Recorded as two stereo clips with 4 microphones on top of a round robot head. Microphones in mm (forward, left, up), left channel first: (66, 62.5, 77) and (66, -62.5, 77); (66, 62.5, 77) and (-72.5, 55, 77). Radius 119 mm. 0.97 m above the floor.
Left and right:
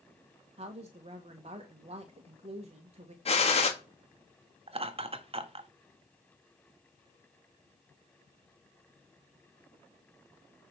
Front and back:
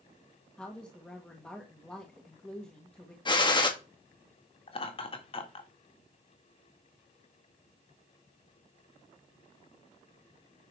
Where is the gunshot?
60° left, 2 m.